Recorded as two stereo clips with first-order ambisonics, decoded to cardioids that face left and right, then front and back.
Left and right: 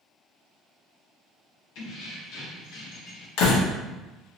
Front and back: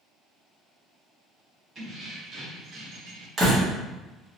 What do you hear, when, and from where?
1.8 s keys jangling: 120° left, 1.3 m; by 3.3 s 145° left, 0.5 m
3.4 s a door slam: 110° left, 0.9 m